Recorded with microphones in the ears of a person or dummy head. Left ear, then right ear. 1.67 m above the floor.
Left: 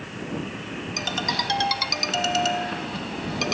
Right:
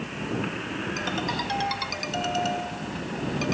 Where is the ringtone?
20° left (ahead or behind).